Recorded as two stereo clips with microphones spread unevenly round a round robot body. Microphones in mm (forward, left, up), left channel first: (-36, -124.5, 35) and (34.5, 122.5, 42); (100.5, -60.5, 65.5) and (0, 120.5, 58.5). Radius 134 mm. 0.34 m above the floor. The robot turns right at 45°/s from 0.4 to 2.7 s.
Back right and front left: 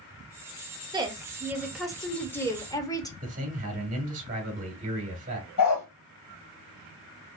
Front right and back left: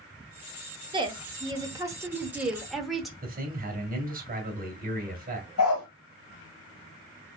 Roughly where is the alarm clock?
No alarm clock in this recording.